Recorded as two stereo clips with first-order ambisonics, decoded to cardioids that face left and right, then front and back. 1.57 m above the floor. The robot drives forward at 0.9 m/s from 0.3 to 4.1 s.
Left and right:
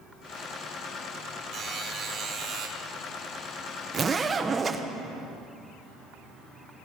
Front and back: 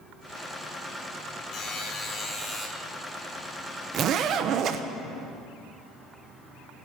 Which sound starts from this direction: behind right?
A zipper, at 3.9 s.